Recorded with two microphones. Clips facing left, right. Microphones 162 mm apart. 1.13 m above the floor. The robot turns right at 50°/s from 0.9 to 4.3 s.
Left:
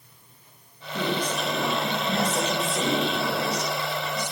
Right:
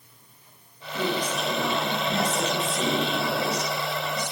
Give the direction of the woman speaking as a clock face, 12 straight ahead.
11 o'clock.